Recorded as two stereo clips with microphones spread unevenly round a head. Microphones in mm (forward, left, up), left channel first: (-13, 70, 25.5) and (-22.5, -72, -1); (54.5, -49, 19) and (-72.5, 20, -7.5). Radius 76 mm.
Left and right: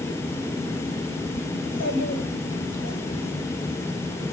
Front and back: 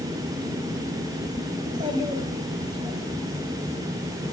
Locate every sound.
1.6 s a child speaking: 85° left, 4 m